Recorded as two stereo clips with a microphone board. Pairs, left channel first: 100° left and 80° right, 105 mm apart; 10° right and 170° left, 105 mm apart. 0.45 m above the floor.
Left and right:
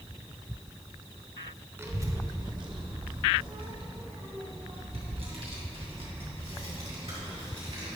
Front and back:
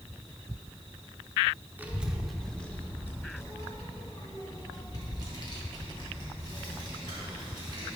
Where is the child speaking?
125° right, 0.8 m; by 8.0 s 55° right, 3.5 m.